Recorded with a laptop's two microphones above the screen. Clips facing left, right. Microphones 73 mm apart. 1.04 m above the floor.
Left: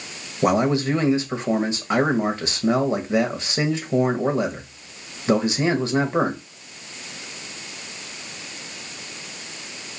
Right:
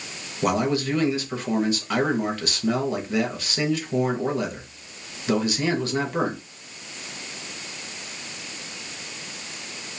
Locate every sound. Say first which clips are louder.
0.4 s a man speaking: left 4 dB; 25° left (ahead or behind), 0.7 m